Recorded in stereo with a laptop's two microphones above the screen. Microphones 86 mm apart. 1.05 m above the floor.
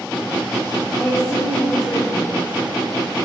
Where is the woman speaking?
15° left (ahead or behind), 3.5 m.